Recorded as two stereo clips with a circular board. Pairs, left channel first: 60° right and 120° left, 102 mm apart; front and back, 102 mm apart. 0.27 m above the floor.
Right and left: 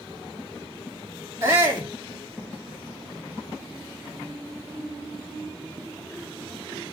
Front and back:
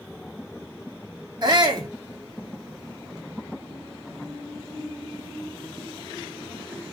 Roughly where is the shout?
Behind.